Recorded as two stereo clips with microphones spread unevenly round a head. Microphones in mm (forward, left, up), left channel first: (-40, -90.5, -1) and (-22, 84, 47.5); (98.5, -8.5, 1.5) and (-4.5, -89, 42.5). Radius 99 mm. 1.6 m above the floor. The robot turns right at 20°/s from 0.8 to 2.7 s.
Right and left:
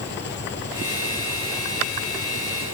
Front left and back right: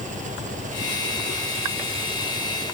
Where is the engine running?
120° right; by 2.7 s 80° right.